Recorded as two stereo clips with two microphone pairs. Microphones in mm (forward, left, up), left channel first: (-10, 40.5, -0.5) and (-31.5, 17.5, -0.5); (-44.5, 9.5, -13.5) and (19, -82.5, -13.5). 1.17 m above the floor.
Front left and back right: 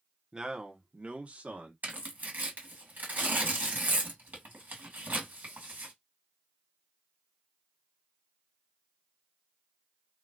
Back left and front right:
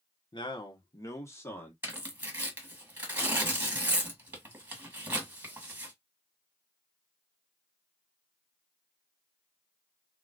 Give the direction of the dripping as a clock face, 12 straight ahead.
I don't hear dripping.